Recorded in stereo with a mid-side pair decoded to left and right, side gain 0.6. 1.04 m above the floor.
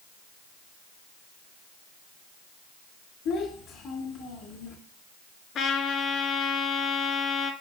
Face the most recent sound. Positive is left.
turn(degrees=55)